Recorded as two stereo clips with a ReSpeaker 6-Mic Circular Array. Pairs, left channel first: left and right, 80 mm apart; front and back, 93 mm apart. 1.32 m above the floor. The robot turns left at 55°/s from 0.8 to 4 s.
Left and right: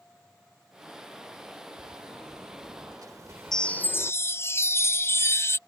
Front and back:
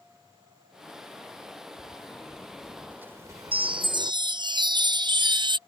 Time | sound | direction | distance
1.8 | a sliding door | 50° right | ?
3.5 | a chime | 175° left | ?